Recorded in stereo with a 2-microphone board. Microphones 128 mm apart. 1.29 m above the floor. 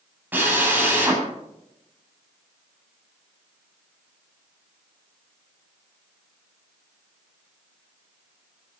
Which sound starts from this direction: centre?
A drill, at 0.3 s.